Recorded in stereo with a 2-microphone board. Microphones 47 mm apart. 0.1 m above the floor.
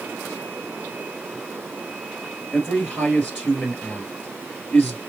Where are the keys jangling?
I don't hear keys jangling.